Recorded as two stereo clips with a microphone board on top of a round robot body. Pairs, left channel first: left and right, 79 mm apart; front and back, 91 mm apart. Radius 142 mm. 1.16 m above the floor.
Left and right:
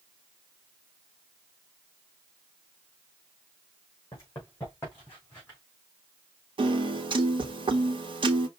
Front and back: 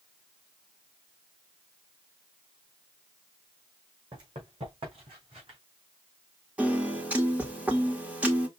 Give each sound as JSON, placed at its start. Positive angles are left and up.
{"t": 4.1, "sound": "running footsteps", "azimuth_deg": 145, "distance_m": 3.5}
{"t": 6.6, "sound": "a piano", "azimuth_deg": -105, "distance_m": 1.2}